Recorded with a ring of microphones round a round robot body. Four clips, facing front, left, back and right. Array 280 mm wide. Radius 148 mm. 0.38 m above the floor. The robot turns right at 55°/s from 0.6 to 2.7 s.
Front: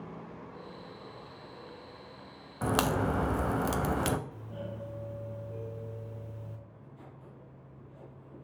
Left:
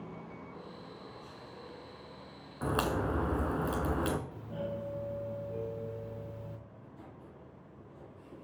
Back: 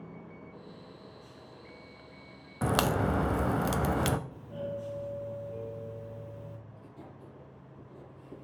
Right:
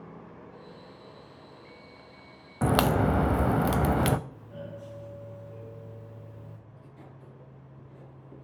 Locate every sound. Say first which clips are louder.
2.6 s a crack: right 8 dB, back 1 dB; 100° right, 0.6 m; by 4.2 s 95° right, 0.6 m
4.3 s a doorbell: left 4 dB, back 4 dB; 100° left, 1.6 m
6.7 s writing: right 1 dB, back 2 dB; 155° right, 4.5 m